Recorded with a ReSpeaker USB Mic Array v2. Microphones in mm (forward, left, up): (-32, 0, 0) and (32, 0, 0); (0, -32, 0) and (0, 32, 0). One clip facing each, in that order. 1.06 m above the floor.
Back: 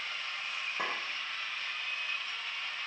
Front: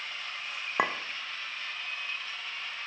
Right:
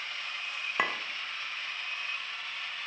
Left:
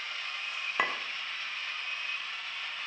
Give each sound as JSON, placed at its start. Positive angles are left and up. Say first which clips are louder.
{"t": 0.8, "sound": "a clink", "louder": "front 8 dB, even", "azimuth_deg": 0, "distance_m": 0.8}